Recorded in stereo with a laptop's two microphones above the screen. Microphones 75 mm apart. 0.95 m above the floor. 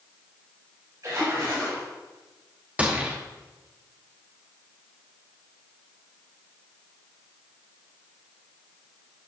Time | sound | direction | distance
1.0 | a splash | 50° right (ahead or behind) | 3 m
2.8 | a gunshot | 20° right (ahead or behind) | 0.7 m